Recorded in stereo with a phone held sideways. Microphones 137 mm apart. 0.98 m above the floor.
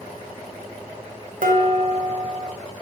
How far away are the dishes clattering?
About 0.7 m.